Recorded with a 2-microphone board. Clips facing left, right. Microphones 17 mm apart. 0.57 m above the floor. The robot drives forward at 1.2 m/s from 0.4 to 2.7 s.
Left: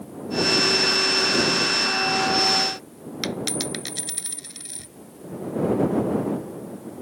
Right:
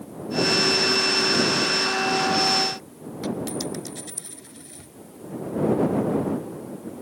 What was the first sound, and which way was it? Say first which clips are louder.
A dropped coin: left 1 dB; 70° left (ahead or behind).